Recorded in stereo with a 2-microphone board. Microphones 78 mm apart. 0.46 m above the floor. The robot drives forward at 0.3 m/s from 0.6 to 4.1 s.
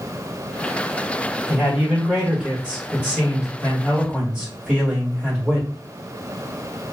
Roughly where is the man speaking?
Centre.